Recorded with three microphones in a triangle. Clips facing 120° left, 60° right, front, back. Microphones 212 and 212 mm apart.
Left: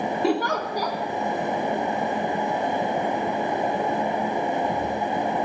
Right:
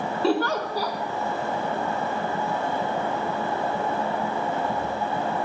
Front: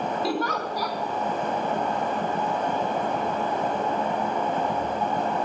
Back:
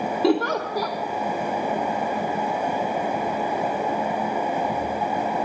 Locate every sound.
0.2 s a giggle: 165° right, 3 m